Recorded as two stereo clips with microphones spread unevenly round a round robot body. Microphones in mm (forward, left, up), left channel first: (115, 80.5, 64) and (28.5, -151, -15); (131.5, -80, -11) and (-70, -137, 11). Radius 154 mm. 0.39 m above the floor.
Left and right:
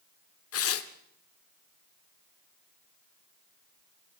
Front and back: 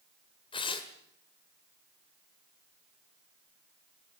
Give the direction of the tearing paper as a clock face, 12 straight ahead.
10 o'clock.